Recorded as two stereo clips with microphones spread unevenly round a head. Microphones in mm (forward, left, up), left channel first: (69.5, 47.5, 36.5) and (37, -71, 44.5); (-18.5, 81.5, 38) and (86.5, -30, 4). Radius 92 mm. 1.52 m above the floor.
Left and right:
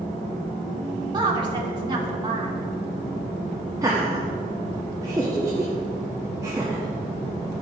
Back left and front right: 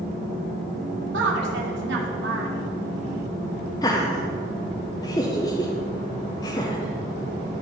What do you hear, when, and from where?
1.1 s a woman speaking: 50° right, 2.5 m
3.8 s laughter: 170° right, 0.6 m